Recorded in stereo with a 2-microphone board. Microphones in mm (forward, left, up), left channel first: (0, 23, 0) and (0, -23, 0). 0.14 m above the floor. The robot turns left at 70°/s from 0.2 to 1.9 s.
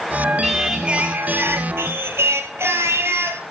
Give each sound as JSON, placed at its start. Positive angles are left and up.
{"t": 0.4, "sound": "singing", "azimuth_deg": 10, "distance_m": 1.2}